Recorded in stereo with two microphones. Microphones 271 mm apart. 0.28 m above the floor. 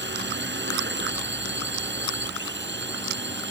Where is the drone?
45° right (ahead or behind).